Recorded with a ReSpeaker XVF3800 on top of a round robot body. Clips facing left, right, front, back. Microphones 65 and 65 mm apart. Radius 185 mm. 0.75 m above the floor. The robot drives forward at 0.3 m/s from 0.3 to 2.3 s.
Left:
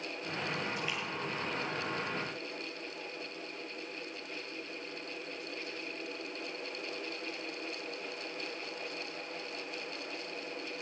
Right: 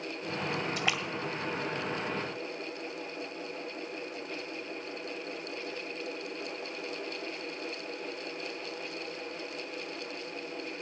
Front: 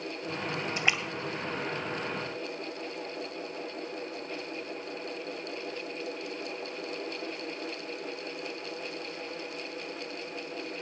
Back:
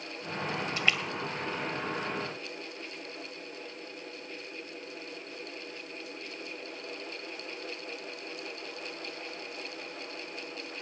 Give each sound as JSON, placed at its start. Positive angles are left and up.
{"t": 0.8, "sound": "a splash", "azimuth_deg": -65, "distance_m": 0.6}